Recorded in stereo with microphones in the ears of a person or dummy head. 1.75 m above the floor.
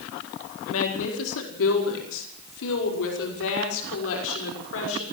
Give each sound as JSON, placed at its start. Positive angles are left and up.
{"t": 0.7, "sound": "a woman speaking", "side_deg": 85, "distance_m": 4.5}